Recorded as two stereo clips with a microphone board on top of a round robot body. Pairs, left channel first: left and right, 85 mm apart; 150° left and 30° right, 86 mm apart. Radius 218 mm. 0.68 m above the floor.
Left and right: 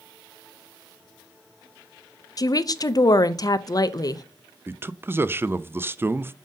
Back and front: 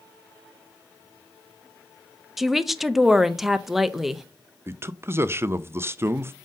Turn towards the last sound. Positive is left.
turn(degrees=-55)